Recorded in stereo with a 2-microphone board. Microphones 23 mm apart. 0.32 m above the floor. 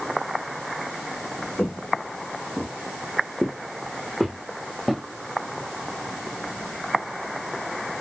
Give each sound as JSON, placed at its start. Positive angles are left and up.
{"t": 1.6, "sound": "footsteps", "side_deg": 70, "distance_m": 1.6}